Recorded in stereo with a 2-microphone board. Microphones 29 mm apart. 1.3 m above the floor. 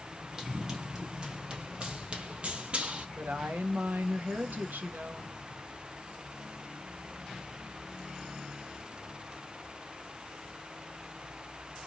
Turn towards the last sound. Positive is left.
turn(degrees=-80)